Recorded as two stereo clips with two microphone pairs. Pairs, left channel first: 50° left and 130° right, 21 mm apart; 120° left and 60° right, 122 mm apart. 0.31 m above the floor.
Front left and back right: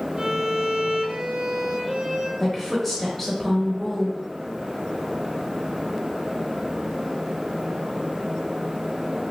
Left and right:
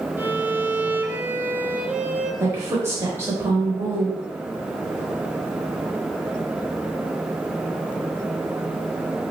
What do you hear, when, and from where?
0.2 s a violin: 130° right, 0.7 m
2.4 s a woman speaking: 15° right, 0.9 m